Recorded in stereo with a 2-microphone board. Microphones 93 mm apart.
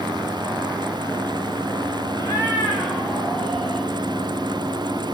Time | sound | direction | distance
2.2 | a cat meowing | 35° left (ahead or behind) | 2.5 m